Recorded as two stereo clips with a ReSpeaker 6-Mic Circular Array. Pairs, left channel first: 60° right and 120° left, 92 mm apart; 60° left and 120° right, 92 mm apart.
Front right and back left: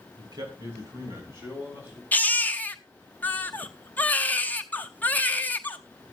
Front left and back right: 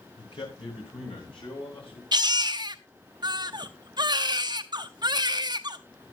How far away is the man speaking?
About 3 m.